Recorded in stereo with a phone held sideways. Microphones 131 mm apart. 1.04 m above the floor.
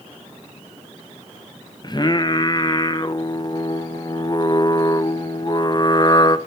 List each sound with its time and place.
1.8 s singing: 35° left (ahead or behind), 0.6 m